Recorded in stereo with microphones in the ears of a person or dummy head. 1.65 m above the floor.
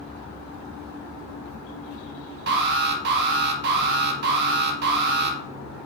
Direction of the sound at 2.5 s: 55° right (ahead or behind).